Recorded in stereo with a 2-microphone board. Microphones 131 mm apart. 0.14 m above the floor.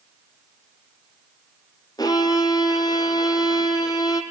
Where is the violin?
30° left (ahead or behind), 1.9 m.